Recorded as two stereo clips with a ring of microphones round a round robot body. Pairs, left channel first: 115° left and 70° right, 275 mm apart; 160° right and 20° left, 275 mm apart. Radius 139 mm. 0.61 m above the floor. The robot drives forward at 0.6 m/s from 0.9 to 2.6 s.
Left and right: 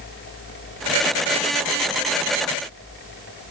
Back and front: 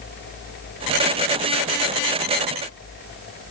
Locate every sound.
Only background noise.